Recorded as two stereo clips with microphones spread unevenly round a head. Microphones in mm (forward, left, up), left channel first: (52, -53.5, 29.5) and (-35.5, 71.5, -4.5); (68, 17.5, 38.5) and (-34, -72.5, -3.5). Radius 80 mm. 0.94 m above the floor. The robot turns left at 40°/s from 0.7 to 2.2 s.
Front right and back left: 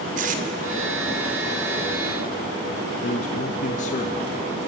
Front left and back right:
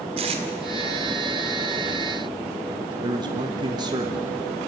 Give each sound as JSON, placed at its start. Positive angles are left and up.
{"t": 0.2, "sound": "tape being pulled", "azimuth_deg": 165, "distance_m": 1.8}
{"t": 3.0, "sound": "a man speaking", "azimuth_deg": -100, "distance_m": 1.4}